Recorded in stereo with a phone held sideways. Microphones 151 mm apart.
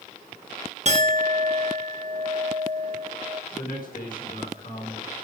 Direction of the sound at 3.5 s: 70° left (ahead or behind).